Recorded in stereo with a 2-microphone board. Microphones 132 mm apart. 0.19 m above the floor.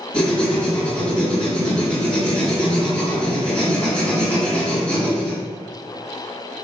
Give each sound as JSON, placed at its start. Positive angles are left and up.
{"t": 0.1, "sound": "writing", "side_deg": 10, "distance_m": 2.0}